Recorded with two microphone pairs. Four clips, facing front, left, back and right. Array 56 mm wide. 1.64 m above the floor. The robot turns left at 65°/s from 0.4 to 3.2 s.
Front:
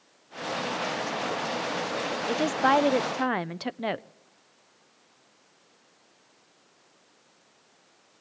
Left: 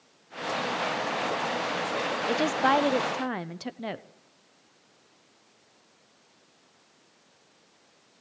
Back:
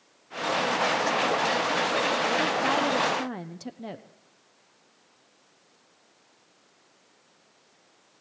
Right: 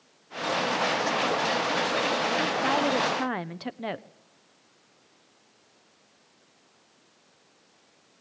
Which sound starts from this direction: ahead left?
A woman speaking, at 2.3 s.